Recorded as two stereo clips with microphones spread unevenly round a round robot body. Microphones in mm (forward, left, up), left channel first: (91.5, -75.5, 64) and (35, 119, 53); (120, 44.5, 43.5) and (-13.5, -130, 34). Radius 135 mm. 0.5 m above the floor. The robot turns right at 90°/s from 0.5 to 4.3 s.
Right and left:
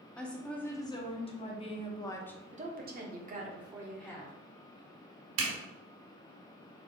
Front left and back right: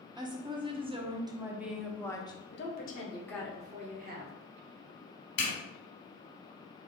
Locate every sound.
0.2 s a woman speaking: 160° right, 0.7 m; by 2.4 s 10° left, 0.7 m
2.5 s a woman speaking: 65° left, 0.9 m; by 4.3 s 135° right, 0.9 m
5.4 s a zipper: 105° left, 1.2 m